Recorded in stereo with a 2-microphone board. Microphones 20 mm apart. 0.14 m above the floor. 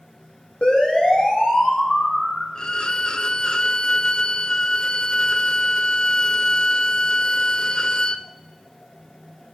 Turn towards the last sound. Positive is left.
turn(degrees=50)  # may be behind; listen again after turning